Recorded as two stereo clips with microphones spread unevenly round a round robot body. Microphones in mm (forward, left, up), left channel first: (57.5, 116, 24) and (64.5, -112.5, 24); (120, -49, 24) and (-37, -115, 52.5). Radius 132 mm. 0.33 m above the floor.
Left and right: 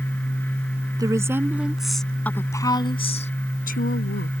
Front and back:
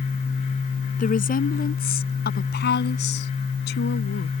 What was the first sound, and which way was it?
A woman speaking, 15° right.